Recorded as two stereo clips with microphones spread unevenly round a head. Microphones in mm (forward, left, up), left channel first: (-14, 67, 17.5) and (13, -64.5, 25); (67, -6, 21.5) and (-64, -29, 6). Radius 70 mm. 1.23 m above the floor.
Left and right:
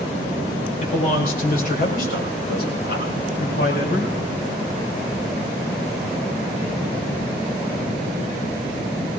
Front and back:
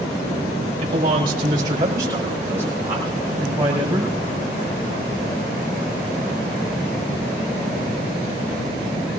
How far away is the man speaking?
About 4.5 m.